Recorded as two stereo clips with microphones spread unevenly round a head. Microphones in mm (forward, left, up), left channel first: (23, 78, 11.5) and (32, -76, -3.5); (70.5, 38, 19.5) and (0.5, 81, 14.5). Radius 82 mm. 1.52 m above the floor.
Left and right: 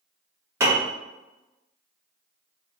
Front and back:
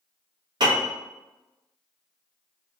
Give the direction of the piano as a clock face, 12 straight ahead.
5 o'clock.